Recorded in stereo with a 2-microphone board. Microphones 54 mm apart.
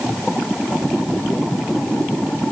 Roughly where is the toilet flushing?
I don't hear a toilet flushing.